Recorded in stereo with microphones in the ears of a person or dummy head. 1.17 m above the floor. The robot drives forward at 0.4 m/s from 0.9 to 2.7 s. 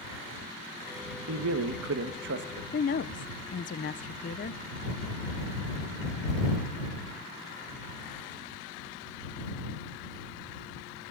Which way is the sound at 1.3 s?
80° right.